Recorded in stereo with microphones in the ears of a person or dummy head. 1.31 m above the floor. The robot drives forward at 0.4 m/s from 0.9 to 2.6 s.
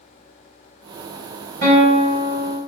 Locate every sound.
1.6 s a guitar: 50° right (ahead or behind), 1.7 m